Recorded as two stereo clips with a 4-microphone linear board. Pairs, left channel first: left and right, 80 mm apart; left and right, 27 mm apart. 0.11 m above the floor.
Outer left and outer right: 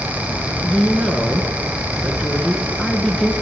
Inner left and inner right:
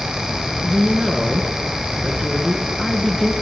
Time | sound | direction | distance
0.6 | a woman speaking | 5° left (ahead or behind) | 1.2 m